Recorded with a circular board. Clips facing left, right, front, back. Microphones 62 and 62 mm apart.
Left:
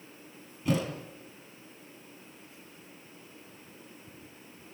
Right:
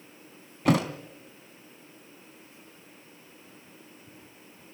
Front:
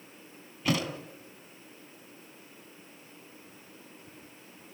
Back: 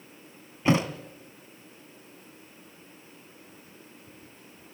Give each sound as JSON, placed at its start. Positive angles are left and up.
{"t": 0.7, "sound": "a thud", "azimuth_deg": -115, "distance_m": 1.9}